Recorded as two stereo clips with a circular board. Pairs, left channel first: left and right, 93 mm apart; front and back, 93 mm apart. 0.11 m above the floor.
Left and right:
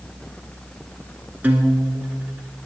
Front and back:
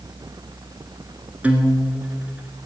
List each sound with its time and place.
1.4 s a guitar: 130° right, 1.2 m